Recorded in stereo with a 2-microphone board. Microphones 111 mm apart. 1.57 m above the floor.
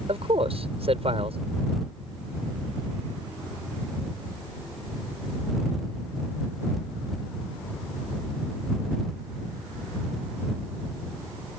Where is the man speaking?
65° right (ahead or behind).